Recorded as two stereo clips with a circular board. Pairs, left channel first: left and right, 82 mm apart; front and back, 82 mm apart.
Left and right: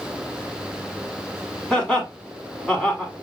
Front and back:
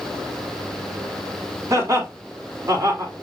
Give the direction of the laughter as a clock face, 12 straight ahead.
7 o'clock.